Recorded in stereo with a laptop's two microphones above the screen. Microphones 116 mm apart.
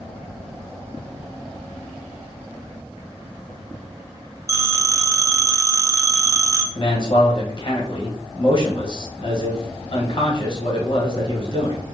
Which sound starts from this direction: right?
A phone ringing, at 4.5 s.